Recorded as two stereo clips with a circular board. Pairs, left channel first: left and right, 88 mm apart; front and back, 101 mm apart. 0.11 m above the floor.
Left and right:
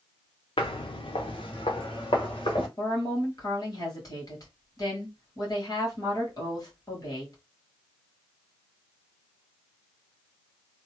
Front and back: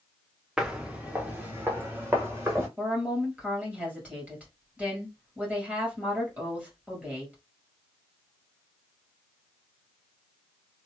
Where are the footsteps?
95° left, 0.7 m; by 2.7 s 110° left, 1.7 m.